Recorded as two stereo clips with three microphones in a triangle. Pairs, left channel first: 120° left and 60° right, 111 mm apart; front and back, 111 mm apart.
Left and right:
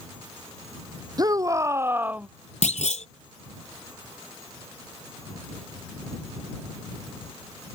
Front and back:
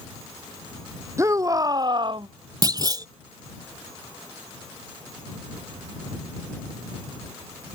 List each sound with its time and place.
1.2 s a shout: 115° right; by 2.3 s 140° right
2.6 s a clunk: 125° left